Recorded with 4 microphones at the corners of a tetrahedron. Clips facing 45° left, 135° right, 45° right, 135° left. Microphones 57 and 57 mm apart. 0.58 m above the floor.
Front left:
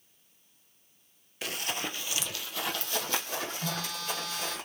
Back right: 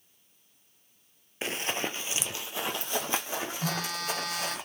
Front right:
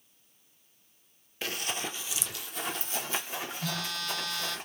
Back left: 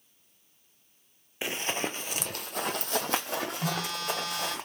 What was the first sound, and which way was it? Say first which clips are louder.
Running footsteps: back right 3 dB, back left 3 dB; 165° right.